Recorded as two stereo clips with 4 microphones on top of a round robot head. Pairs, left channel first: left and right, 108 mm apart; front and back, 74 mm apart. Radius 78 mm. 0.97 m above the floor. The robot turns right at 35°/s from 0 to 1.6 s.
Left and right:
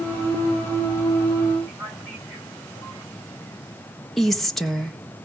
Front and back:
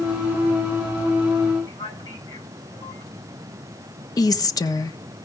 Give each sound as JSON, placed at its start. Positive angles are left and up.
{"t": 1.7, "sound": "a man speaking", "azimuth_deg": 10, "distance_m": 9.5}
{"t": 4.2, "sound": "a woman speaking", "azimuth_deg": 5, "distance_m": 1.1}